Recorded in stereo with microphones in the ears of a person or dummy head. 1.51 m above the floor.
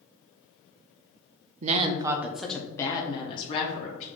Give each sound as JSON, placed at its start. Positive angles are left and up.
{"t": 1.6, "sound": "a woman speaking", "side_deg": -40, "distance_m": 0.5}